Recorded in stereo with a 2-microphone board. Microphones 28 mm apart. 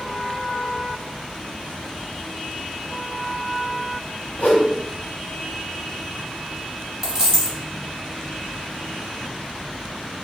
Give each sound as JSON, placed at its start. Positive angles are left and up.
{"t": 4.4, "sound": "a whoosh", "side_deg": 70, "distance_m": 0.8}
{"t": 7.0, "sound": "a dropped coin", "side_deg": -20, "distance_m": 1.1}